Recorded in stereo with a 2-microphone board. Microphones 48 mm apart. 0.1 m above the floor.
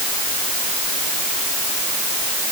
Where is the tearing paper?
I don't hear tearing paper.